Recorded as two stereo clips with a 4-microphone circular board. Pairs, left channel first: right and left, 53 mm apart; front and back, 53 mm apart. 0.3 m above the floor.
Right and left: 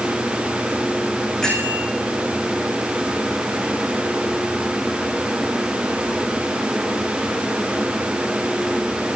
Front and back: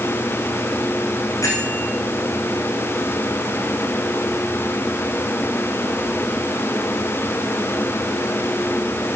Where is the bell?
15° right, 7.5 m.